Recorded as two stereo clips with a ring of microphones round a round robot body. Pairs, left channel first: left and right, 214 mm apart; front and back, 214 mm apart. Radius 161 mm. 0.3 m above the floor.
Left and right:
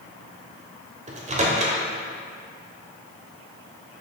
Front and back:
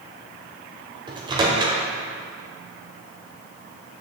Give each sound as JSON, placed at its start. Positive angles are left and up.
{"t": 1.1, "sound": "a microwave", "azimuth_deg": -125, "distance_m": 0.9}